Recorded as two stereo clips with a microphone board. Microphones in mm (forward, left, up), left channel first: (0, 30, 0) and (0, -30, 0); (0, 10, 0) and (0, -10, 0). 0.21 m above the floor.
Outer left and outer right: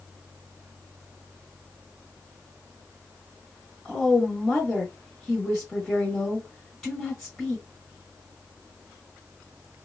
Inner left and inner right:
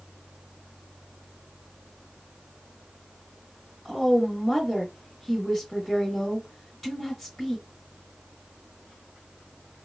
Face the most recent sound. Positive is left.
turn(degrees=5)  # may be behind; listen again after turning